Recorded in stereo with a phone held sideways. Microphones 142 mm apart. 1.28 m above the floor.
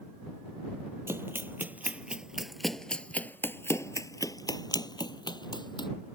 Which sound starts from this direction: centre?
Running footsteps, at 1.1 s.